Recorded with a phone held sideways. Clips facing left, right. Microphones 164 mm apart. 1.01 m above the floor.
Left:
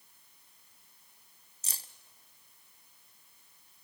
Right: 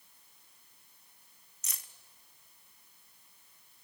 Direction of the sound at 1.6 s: 30° left (ahead or behind).